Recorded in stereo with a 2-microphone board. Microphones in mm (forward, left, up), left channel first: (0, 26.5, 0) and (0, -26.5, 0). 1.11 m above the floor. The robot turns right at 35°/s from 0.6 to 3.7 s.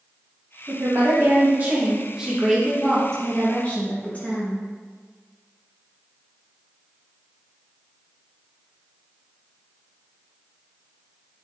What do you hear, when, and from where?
0.7 s a woman speaking: 70° right, 1.4 m; by 4.6 s 35° left, 1.4 m